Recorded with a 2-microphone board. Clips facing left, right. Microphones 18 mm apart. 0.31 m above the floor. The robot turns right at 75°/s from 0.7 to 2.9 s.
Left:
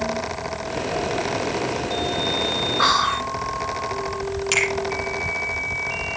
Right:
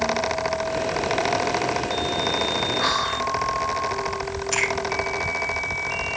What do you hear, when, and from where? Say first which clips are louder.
2.8 s whispering: left 4 dB; 60° left (ahead or behind), 3.5 m; by 3.3 s 65° left (ahead or behind), 3.5 m
4.5 s a finger snap: left 3 dB; 70° left (ahead or behind), 7.5 m